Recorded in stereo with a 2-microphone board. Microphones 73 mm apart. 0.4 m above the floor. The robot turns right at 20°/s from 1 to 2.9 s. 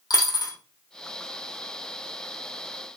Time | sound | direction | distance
0.1 | a dropped coin | 75° left (ahead or behind) | 1.2 m